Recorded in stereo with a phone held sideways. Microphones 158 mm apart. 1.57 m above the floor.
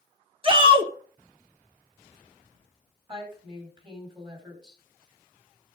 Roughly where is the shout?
Right.